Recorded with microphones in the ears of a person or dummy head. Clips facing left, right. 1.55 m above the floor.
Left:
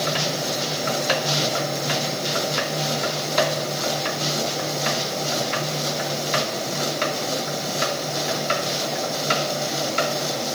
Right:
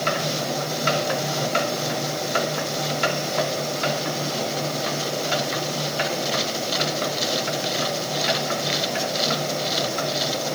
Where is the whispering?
No whispering in this recording.